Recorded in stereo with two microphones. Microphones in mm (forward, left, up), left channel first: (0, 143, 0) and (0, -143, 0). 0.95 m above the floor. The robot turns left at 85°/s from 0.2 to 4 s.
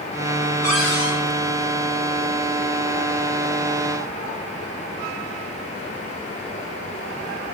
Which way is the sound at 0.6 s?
115° right.